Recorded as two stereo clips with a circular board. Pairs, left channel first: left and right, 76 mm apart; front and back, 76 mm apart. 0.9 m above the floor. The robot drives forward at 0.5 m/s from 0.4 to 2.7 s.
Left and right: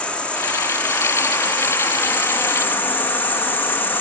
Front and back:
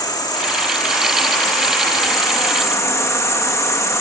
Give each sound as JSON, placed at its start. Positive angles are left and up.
{"t": 0.0, "sound": "an insect", "azimuth_deg": 15}